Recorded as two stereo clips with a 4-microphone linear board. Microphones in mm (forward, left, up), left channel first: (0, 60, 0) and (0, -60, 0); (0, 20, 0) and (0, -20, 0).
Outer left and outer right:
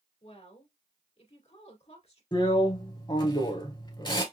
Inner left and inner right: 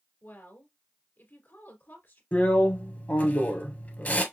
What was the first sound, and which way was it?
A woman speaking, 60° left (ahead or behind).